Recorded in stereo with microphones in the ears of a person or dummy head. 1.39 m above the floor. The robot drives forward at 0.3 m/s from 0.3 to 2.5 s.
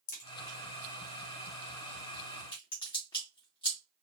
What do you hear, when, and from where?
0.1 s a crack: 50° left (ahead or behind), 0.7 m; by 3.8 s 25° left (ahead or behind), 1.2 m